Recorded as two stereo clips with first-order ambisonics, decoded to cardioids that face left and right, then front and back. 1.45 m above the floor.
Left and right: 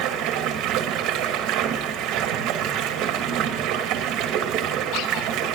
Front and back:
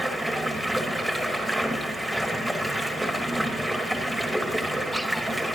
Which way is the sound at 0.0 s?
95° right.